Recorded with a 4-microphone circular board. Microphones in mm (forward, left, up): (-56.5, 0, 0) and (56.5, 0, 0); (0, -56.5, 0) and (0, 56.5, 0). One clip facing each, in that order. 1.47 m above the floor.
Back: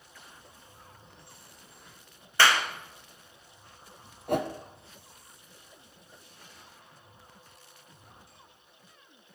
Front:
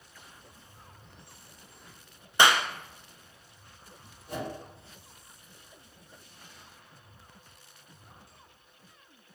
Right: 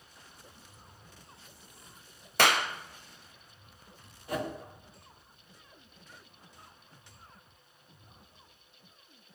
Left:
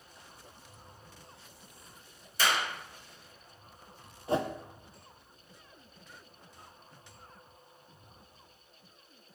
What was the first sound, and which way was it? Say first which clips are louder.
A clap: front 1 dB, right 4 dB; 70° right.